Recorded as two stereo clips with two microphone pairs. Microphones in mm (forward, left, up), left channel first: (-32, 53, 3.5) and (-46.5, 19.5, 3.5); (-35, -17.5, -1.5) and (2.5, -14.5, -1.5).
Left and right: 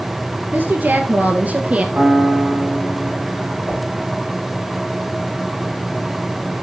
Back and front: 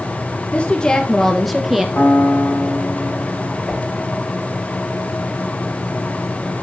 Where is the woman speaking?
125° right, 2 m; by 1.9 s 75° right, 2.5 m.